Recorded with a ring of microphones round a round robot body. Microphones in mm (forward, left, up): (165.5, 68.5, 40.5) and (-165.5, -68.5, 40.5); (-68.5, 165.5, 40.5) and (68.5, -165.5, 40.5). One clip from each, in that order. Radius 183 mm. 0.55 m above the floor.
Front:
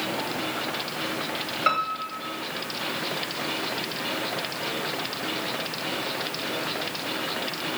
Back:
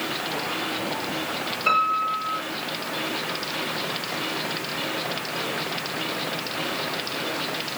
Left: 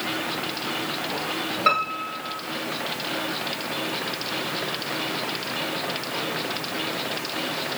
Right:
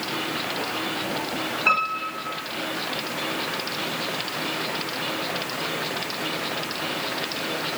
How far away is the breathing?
No breathing in this recording.